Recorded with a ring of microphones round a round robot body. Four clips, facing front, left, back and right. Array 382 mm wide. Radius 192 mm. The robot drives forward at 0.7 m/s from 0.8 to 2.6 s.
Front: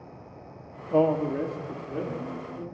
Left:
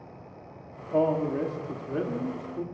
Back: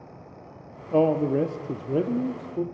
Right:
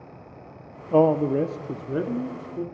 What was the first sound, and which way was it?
A man speaking, 100° right.